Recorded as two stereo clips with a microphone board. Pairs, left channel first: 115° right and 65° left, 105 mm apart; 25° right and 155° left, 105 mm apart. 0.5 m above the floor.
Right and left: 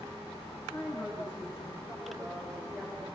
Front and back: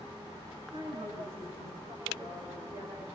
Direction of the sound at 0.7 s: 175° right.